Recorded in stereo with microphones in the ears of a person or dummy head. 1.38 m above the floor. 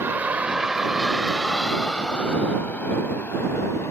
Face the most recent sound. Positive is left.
turn(degrees=15)  # may be behind; listen again after turning